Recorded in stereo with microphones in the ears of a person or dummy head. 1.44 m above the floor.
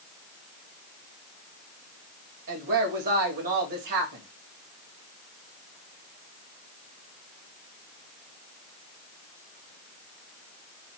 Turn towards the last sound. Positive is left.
turn(degrees=-60)  # may be behind; listen again after turning